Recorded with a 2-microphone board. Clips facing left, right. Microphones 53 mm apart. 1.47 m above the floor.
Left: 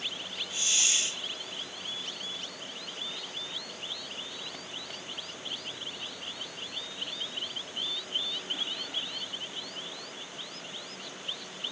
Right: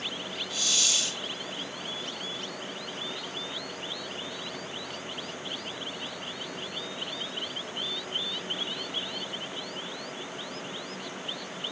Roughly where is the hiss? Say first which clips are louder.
Right 1 dB; left.